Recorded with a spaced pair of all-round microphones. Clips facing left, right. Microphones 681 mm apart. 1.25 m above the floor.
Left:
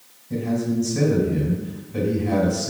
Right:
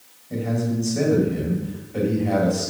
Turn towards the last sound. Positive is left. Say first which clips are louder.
# left 2 dB
turn(degrees=40)  # may be behind; listen again after turning